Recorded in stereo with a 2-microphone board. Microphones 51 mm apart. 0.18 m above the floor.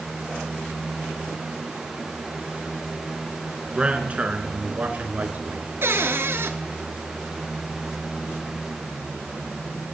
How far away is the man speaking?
About 2.5 m.